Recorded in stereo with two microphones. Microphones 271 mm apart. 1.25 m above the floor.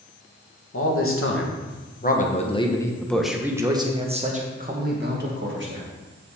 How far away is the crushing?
No crushing in this recording.